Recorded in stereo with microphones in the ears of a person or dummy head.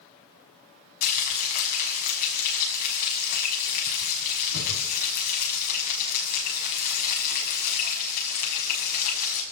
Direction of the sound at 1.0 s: 45° left (ahead or behind).